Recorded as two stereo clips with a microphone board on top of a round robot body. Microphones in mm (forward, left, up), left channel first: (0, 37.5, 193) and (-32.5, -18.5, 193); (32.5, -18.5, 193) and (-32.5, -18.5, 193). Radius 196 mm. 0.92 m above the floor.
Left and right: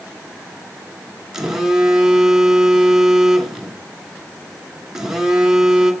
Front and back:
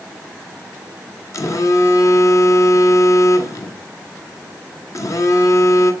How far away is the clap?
No clap in this recording.